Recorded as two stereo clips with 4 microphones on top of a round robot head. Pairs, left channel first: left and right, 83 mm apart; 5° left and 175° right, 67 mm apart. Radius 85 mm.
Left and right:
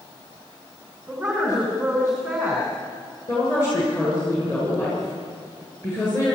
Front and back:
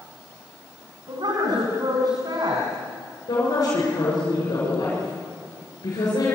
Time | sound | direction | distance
1.1 | a woman speaking | 170° right | 4 m
3.3 | a woman speaking | 35° left | 7.5 m